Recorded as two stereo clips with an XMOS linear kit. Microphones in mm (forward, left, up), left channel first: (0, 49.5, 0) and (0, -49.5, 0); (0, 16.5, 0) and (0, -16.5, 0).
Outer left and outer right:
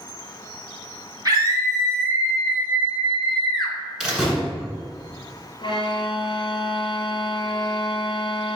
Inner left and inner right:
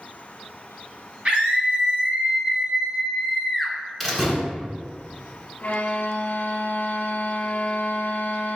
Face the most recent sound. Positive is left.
turn(degrees=55)  # may be behind; listen again after turning